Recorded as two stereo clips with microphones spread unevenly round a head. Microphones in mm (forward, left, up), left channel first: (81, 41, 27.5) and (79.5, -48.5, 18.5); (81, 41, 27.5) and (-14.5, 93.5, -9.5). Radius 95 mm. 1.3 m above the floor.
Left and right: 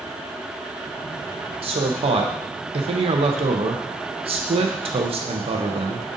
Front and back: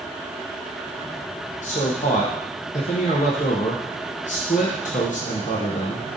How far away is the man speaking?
About 0.7 m.